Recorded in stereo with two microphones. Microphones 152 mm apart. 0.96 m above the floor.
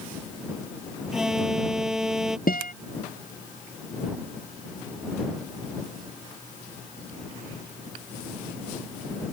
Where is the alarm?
5° right (ahead or behind).